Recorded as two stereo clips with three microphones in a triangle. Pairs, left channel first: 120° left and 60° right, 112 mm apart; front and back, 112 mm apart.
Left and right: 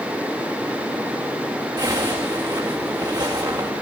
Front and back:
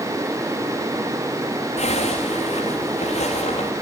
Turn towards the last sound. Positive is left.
turn(degrees=-10)